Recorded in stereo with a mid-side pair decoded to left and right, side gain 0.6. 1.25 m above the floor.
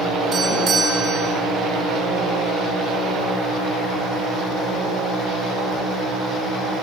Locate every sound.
0.3 s a doorbell: 40° right, 8 m